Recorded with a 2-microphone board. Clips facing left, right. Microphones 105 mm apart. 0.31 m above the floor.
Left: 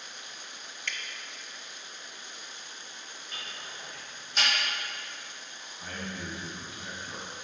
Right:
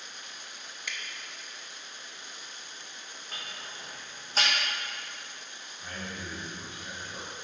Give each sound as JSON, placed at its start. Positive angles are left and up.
{"t": 0.9, "sound": "dripping", "side_deg": -10, "distance_m": 0.8}
{"t": 3.3, "sound": "ticking", "side_deg": -35, "distance_m": 3.0}
{"t": 5.8, "sound": "a man speaking", "side_deg": 65, "distance_m": 2.5}